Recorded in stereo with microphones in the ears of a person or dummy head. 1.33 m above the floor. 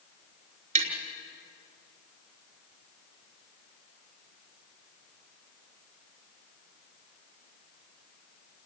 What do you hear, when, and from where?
0.8 s tapping: 45° right (ahead or behind), 5 m